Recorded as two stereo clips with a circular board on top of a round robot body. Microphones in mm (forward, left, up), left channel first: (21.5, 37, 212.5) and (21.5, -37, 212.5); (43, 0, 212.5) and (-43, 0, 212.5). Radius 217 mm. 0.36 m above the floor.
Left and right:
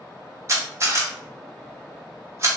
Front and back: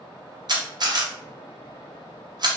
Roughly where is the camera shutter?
Behind right.